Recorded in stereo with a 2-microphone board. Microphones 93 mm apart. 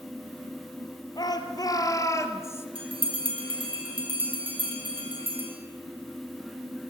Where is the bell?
70° right (ahead or behind), 3.5 m.